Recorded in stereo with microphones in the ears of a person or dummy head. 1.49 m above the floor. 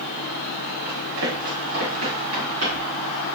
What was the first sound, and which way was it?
Running footsteps, 70° right (ahead or behind).